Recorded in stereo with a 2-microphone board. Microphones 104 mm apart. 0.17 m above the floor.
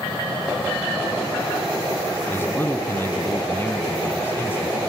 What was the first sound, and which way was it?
A man speaking, 20° left (ahead or behind).